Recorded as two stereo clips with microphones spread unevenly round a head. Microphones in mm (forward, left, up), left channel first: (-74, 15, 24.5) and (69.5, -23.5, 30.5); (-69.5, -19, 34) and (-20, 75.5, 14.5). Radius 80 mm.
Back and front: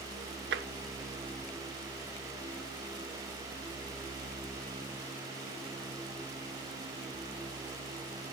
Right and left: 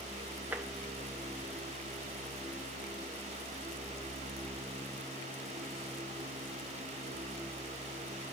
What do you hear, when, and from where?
0.5 s tapping: 20° right, 0.7 m